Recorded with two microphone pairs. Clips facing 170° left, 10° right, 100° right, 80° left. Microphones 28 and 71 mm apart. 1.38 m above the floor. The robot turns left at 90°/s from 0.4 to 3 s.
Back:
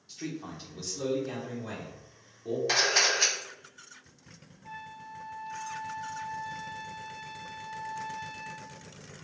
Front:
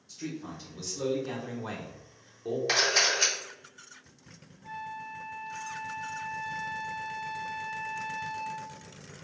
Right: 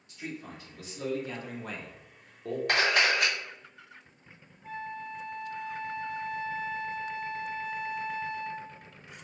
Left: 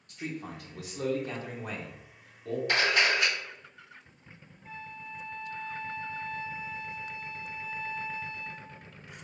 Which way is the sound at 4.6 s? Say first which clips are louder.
Front 4 dB, right 6 dB; 95° right.